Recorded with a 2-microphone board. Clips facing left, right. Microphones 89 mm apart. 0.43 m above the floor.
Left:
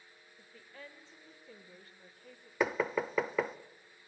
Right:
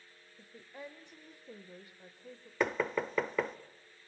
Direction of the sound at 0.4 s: 15° right (ahead or behind).